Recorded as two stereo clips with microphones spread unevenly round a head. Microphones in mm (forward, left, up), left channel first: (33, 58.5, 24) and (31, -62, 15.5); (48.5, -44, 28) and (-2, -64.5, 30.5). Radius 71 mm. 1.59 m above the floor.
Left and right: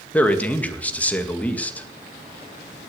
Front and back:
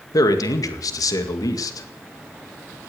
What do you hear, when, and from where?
0.1 s a man speaking: 10° left, 2 m